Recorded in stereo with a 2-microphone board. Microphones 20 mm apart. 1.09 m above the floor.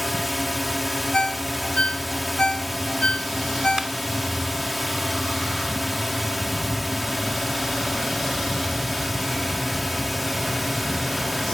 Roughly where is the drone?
Centre.